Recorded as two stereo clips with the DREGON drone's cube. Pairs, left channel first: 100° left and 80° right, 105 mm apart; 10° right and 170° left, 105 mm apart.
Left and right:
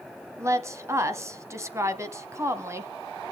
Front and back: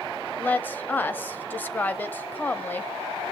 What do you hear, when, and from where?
0.4 s a woman speaking: 65° right, 1.0 m